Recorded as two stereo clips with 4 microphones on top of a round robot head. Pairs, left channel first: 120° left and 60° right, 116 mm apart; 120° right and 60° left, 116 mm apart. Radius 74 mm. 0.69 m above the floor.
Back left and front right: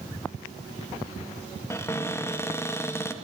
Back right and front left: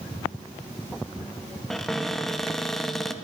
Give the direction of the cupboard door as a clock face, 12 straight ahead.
7 o'clock.